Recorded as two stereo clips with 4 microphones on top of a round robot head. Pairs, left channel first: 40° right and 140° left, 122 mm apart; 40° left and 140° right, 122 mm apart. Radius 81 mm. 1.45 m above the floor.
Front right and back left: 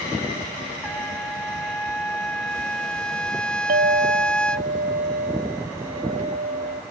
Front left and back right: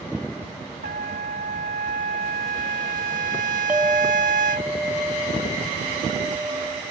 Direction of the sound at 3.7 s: 140° left.